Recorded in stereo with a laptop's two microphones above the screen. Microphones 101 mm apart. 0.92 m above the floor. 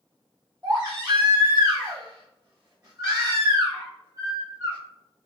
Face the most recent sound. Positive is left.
turn(degrees=-35)  # may be behind; listen again after turning